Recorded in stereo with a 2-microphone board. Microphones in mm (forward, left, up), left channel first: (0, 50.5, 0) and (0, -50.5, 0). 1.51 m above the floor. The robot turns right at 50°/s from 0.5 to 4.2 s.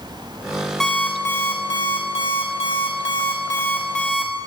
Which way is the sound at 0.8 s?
5° left.